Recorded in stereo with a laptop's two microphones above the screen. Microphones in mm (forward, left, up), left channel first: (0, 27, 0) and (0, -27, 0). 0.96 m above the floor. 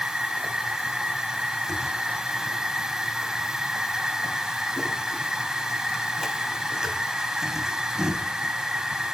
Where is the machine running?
10° right (ahead or behind), 1.1 m.